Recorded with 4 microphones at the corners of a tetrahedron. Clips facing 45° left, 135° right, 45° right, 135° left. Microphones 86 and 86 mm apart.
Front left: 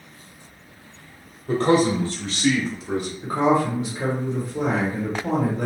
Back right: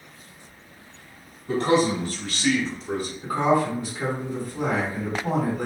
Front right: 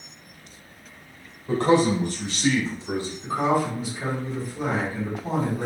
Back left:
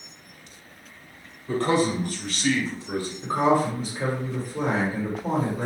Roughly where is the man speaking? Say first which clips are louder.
Front left 2 dB, front right 3 dB; ahead.